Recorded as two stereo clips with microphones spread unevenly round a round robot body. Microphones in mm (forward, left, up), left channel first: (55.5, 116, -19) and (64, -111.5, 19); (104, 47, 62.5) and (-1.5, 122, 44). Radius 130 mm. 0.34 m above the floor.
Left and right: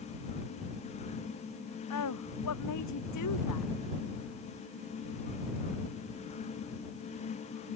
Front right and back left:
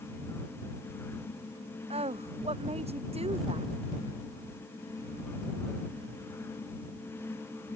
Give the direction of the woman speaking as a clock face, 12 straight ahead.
8 o'clock.